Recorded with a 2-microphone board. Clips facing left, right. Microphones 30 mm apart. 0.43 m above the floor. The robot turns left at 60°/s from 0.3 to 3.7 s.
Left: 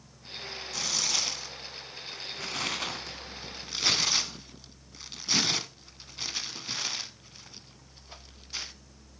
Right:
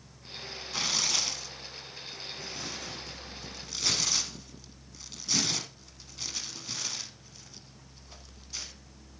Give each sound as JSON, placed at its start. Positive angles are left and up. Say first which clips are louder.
{"t": 0.7, "sound": "tearing paper", "louder": "right 1 dB", "side_deg": -25, "distance_m": 1.2}